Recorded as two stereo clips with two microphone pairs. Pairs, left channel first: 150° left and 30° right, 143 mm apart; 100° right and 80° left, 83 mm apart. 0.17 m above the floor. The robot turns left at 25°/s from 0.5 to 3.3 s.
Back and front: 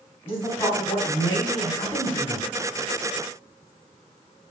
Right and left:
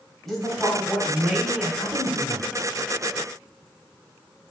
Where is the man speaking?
175° left, 1.1 m; by 2.5 s 125° left, 1.1 m.